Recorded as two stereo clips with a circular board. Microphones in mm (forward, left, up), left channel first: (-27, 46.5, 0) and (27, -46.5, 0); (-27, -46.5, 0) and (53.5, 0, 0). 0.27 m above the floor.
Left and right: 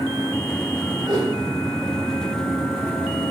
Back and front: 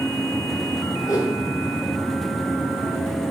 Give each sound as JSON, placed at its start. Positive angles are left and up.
{"t": 1.1, "sound": "a whoosh", "azimuth_deg": -105, "distance_m": 3.0}